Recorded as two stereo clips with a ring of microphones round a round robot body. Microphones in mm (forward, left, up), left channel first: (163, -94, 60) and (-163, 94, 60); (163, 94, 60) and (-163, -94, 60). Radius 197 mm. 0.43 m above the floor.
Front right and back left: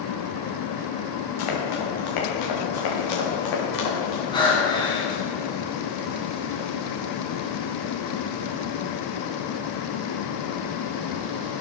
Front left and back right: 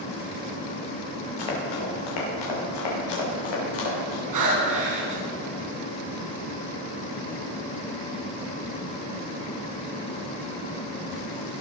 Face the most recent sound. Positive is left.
turn(degrees=-110)